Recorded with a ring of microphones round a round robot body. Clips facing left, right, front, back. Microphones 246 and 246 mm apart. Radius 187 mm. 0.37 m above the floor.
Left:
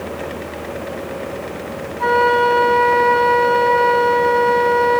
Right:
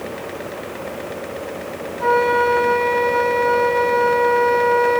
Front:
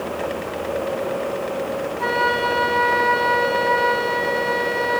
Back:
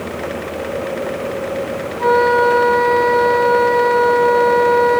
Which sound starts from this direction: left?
A flute, at 2.0 s.